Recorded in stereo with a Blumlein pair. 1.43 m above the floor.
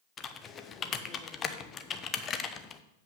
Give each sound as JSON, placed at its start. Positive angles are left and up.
{"t": 0.2, "sound": "typing on a keyboard", "azimuth_deg": 25, "distance_m": 0.8}